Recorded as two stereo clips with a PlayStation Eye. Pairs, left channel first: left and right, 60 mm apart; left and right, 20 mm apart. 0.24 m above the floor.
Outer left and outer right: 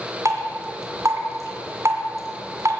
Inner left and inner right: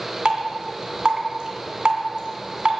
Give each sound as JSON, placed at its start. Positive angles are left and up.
{"t": 0.2, "sound": "dripping", "side_deg": -55, "distance_m": 2.5}